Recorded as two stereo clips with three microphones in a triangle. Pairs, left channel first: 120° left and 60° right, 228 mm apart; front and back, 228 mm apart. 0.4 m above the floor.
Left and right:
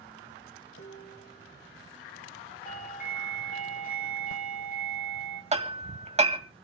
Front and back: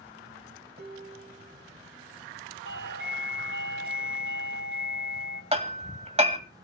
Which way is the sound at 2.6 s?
165° left.